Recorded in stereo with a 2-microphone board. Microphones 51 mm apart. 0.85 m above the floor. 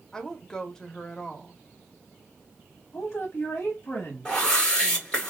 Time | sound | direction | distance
0.1 | a woman speaking | 10° left (ahead or behind) | 0.8 m
2.9 | a woman speaking | 55° left (ahead or behind) | 1.0 m
4.2 | a whoosh | 15° left (ahead or behind) | 1.9 m